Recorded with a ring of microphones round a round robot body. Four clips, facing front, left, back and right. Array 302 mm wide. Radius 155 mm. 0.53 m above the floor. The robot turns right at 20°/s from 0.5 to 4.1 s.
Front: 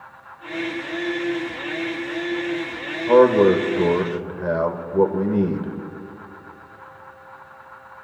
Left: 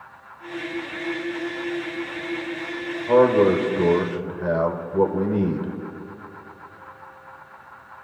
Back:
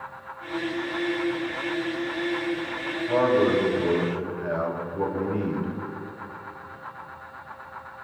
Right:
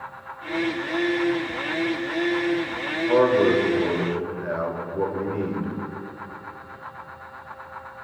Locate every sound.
3.1 s a man speaking: 5° left, 1.7 m; by 5.8 s 25° left, 1.7 m